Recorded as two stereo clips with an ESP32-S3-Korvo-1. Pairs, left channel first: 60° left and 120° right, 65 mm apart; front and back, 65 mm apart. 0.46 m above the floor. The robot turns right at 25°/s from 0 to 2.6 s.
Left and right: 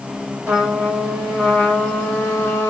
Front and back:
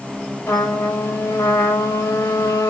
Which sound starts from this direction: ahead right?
A trumpet, at 0.5 s.